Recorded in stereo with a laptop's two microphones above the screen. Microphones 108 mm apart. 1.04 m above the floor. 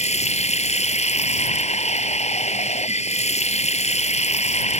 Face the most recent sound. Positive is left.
turn(degrees=85)